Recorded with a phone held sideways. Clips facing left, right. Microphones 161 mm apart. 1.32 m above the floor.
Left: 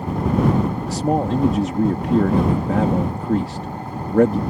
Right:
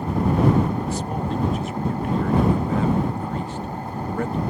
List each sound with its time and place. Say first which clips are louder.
0.9 s a man speaking: left 6 dB; 80° left